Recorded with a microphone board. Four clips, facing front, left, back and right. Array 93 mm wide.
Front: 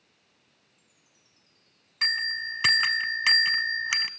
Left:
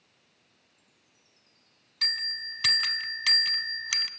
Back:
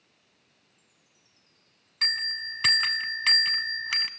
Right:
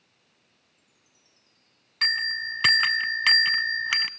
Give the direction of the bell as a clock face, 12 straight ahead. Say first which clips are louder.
Right 9 dB, front 3 dB; 2 o'clock.